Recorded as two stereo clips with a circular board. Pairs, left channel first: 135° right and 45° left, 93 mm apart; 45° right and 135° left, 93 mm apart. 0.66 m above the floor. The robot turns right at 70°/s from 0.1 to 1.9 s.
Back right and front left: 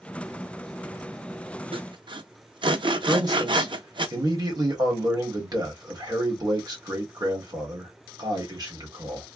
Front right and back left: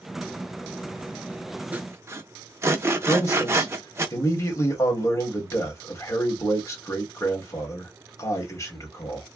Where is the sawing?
65° left, 0.6 m; by 4.1 s 75° left, 0.6 m.